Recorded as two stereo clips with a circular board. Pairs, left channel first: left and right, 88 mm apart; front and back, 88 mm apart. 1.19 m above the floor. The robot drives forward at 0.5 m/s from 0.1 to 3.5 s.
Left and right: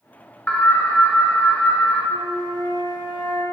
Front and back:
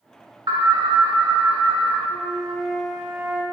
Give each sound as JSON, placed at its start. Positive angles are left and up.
{"t": 0.5, "sound": "an alarm", "azimuth_deg": 160, "distance_m": 0.8}
{"t": 2.1, "sound": "a flute", "azimuth_deg": -75, "distance_m": 1.6}